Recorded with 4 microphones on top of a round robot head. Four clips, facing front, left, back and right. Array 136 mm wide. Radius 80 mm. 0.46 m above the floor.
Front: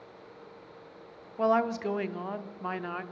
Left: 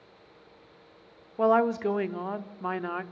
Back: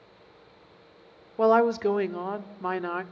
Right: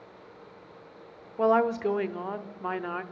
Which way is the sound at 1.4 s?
170° left.